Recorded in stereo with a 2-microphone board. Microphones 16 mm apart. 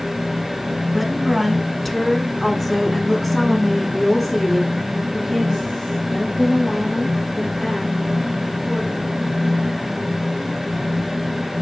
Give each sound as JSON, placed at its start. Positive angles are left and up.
{"t": 0.9, "sound": "a woman speaking", "side_deg": 0, "distance_m": 1.6}